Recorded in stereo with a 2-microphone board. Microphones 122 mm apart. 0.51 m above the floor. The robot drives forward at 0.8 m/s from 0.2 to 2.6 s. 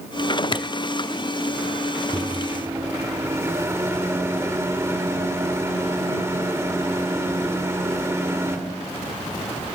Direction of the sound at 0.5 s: 40° left (ahead or behind).